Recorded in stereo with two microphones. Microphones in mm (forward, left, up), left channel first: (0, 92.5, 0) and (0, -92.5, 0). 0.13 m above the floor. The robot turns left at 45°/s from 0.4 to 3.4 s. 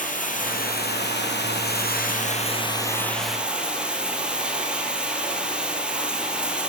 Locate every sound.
0.0 s running water: 130° left, 2.5 m; by 6.7 s 5° right, 2.5 m